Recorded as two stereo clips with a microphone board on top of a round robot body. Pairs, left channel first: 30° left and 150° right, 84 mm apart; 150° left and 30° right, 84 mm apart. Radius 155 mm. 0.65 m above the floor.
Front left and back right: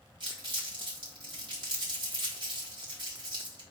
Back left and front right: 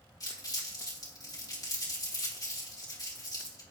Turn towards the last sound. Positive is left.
turn(degrees=-170)